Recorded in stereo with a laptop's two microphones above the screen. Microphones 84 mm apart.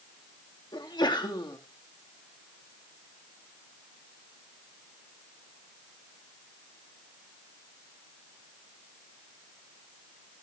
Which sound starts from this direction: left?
A sneeze, at 0.7 s.